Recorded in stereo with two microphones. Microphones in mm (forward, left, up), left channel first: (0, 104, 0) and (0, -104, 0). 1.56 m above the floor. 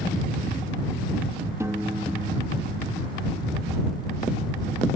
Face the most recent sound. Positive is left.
turn(degrees=-15)  # may be behind; listen again after turning